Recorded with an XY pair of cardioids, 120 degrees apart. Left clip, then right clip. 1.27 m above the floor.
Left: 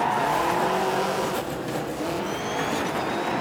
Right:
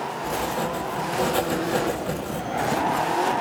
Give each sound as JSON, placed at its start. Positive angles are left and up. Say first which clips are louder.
{"t": 0.2, "sound": "writing", "louder": "left 4 dB", "azimuth_deg": -55, "distance_m": 1.2}